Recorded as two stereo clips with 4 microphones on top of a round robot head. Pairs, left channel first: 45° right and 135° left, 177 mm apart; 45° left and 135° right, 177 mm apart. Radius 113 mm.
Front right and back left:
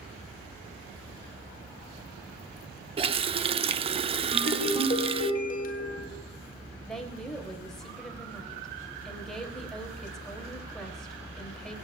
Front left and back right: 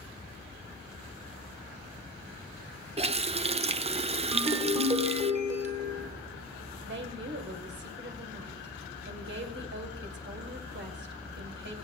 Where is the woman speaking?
130° right, 2.5 m.